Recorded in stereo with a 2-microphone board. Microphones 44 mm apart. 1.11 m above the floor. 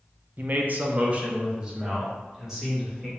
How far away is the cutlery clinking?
I don't hear cutlery clinking.